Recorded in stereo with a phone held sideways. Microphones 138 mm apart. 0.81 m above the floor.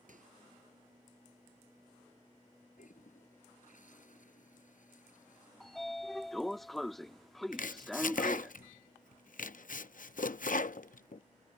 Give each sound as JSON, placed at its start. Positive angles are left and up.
{"t": 0.1, "sound": "a microwave", "side_deg": -70}
{"t": 2.8, "sound": "a toilet flushing", "side_deg": 70}
{"t": 5.6, "sound": "a sliding door", "side_deg": 0}
{"t": 7.5, "sound": "chopping", "side_deg": 75}